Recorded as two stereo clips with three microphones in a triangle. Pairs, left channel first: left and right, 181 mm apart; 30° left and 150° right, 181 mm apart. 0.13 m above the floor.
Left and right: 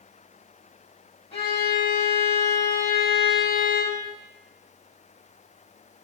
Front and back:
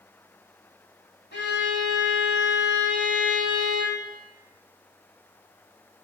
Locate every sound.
1.3 s a violin: 35° left, 1.0 m